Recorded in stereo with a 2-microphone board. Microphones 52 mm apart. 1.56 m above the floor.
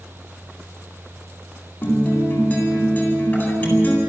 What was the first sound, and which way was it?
A guitar, 30° left (ahead or behind).